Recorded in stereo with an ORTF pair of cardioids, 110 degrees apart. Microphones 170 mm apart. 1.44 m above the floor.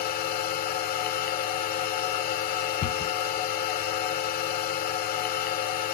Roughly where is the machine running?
Ahead left.